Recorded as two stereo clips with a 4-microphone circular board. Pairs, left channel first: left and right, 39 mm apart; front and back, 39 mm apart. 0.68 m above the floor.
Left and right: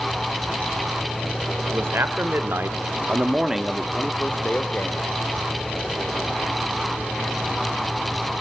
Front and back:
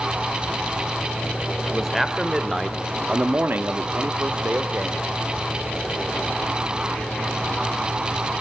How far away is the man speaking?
About 2.5 m.